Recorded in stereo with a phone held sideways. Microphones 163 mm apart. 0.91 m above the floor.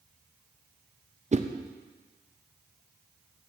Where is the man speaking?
No man speaking in this recording.